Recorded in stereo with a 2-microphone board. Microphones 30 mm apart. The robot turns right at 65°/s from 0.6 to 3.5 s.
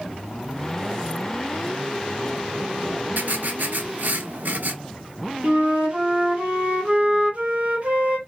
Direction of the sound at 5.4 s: 45° right (ahead or behind).